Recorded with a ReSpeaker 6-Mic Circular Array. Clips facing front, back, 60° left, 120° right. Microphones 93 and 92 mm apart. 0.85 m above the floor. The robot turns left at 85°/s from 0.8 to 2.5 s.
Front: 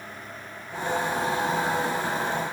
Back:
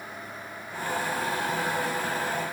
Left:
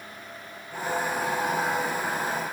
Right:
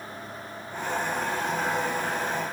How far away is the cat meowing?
I don't hear a cat meowing.